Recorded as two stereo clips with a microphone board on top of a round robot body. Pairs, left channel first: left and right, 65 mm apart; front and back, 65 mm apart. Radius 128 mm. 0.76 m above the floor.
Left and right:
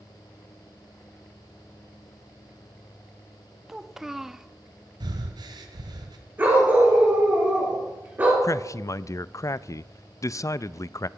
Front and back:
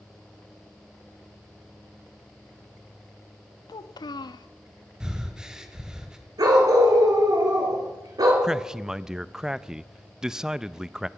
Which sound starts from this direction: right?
Breathing, at 5.0 s.